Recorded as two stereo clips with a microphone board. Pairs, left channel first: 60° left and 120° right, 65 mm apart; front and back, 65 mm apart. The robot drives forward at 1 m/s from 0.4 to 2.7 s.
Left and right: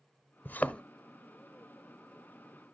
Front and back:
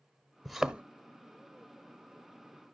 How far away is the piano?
I don't hear a piano.